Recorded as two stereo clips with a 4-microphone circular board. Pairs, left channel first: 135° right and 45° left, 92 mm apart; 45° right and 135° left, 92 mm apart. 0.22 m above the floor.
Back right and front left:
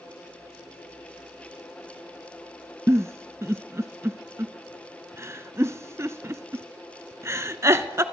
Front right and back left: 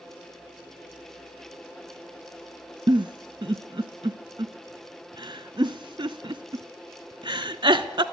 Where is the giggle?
105° left, 0.5 m.